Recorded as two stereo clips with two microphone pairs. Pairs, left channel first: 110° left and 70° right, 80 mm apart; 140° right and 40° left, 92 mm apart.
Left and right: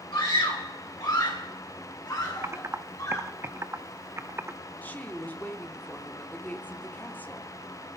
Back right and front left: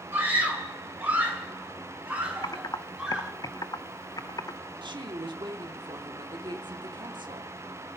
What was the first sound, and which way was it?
A scream, 110° left.